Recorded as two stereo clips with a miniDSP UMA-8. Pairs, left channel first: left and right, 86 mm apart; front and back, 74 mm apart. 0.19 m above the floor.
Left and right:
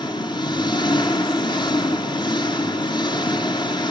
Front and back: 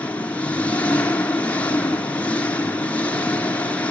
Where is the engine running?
70° left, 1.4 m.